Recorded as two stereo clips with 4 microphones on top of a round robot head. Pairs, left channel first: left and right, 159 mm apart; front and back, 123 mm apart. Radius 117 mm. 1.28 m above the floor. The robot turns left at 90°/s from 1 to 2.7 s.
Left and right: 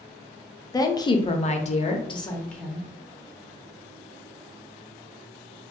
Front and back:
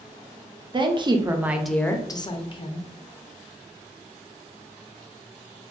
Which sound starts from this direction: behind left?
A woman speaking, at 0.7 s.